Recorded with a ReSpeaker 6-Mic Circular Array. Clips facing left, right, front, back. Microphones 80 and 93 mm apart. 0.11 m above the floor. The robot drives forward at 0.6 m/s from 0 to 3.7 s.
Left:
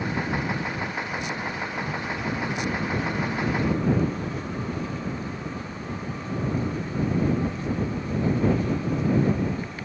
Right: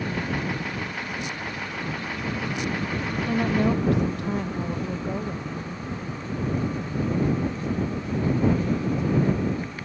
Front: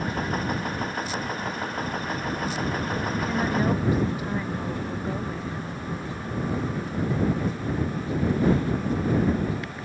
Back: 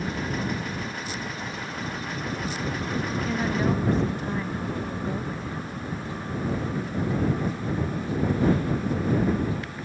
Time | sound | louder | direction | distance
3.1 | a woman speaking | right 2 dB, front 2 dB | 85° right | ?